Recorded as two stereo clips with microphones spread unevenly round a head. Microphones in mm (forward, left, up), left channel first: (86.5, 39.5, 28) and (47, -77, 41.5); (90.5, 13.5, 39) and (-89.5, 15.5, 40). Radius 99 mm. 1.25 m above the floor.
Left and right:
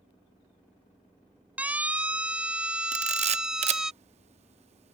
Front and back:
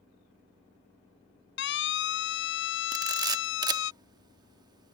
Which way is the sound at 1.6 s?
30° right.